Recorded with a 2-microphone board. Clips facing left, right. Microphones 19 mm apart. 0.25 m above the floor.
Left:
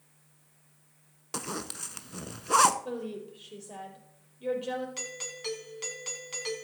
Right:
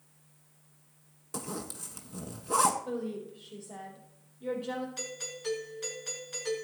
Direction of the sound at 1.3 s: 50° left (ahead or behind).